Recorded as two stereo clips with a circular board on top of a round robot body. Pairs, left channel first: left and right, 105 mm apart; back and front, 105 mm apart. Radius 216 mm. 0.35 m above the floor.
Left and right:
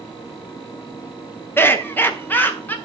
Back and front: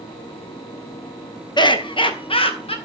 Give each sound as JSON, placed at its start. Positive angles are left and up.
{"t": 1.6, "sound": "laughter", "azimuth_deg": 155, "distance_m": 1.7}